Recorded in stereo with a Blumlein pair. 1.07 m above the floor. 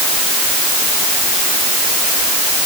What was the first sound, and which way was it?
Only background noise.